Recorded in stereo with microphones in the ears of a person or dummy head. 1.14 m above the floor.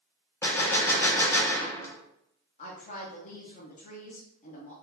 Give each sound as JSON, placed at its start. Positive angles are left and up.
{"t": 0.4, "sound": "a gunshot", "side_deg": 15, "distance_m": 0.7}
{"t": 2.6, "sound": "a woman speaking", "side_deg": 35, "distance_m": 0.7}